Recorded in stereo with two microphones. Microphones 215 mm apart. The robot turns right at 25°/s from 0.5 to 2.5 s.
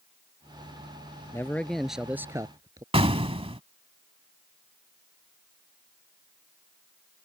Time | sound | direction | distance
1.3 | a man speaking | 10° left (ahead or behind) | ?
2.9 | an explosion | 25° right (ahead or behind) | ?